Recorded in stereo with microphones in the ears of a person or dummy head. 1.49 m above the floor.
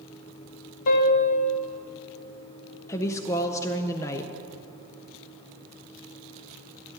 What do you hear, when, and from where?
0.9 s a piano: 45° left (ahead or behind), 0.9 m
2.9 s a woman speaking: 20° left (ahead or behind), 0.5 m